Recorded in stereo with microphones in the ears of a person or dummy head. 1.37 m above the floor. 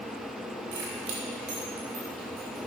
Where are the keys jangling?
70° right (ahead or behind), 3 m; by 2.6 s 45° right (ahead or behind), 5 m.